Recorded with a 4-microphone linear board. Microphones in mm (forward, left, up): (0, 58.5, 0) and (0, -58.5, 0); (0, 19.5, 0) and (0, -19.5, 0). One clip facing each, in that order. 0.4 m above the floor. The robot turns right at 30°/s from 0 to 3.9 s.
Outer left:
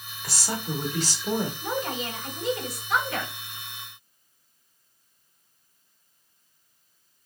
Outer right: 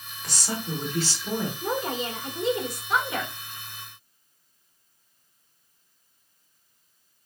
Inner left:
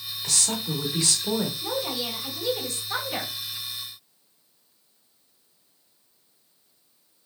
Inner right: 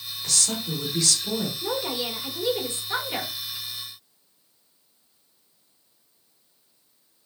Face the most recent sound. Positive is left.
turn(degrees=-5)